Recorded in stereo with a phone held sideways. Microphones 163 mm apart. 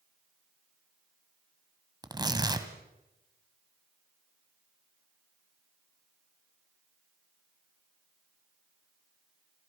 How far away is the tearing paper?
About 1.9 m.